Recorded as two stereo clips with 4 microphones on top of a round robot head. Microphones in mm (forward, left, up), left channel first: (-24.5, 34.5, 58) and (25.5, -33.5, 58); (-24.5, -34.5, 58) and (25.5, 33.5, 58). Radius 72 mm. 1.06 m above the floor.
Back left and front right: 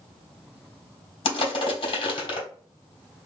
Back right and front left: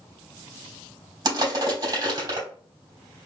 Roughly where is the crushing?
Left.